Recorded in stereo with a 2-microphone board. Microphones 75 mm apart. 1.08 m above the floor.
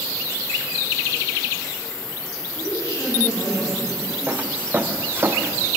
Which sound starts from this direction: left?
A woman speaking, at 2.5 s.